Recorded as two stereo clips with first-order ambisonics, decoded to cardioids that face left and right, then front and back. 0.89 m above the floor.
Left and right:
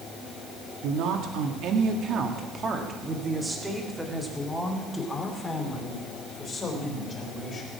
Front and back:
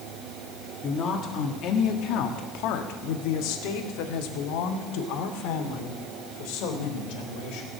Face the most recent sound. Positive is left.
turn(degrees=25)